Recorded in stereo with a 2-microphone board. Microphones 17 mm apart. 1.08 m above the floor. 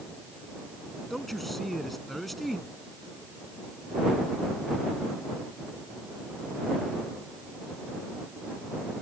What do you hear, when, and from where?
1.1 s a man speaking: 5° left (ahead or behind)